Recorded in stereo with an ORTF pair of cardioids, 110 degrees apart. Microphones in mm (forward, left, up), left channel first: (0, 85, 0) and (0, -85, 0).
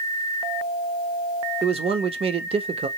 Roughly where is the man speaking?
Ahead right.